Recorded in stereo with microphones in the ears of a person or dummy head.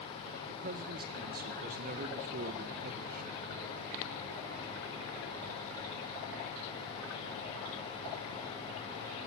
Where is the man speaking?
45° right (ahead or behind), 1.0 m.